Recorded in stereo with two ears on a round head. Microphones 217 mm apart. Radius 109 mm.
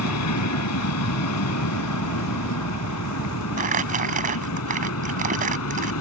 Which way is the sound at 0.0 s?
75° left (ahead or behind).